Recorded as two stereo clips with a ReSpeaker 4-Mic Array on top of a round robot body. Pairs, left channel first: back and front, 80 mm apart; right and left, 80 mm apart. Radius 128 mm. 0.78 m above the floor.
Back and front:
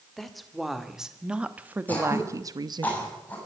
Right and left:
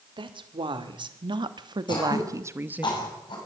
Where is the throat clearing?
110° right, 7 m.